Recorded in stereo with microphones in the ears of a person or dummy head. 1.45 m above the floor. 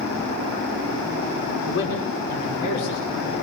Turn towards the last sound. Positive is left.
turn(degrees=90)